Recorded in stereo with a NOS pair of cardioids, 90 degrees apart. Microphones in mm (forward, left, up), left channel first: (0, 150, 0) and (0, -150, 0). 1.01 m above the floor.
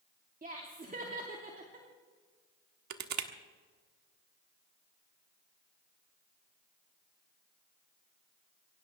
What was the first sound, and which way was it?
Laughter, 25° right.